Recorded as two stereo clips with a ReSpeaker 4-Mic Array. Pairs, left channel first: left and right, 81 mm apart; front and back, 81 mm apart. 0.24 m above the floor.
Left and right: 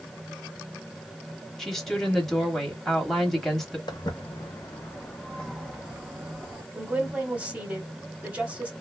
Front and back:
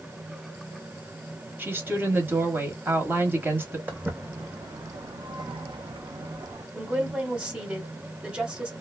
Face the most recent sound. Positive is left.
turn(degrees=-130)